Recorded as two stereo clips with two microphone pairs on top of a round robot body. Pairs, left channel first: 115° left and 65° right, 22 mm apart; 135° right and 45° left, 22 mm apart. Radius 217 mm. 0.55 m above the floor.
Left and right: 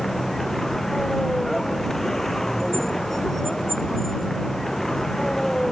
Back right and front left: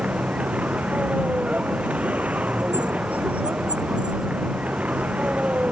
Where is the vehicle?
40° left; by 5.7 s 45° left.